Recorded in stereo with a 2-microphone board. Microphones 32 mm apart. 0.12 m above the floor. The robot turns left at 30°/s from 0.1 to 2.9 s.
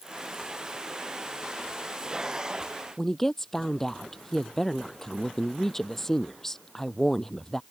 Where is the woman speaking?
15° left (ahead or behind).